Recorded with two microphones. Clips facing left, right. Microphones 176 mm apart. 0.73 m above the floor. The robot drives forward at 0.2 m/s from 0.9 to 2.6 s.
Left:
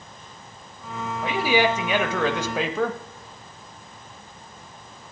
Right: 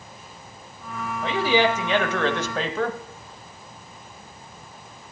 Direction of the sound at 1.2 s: 10° left (ahead or behind).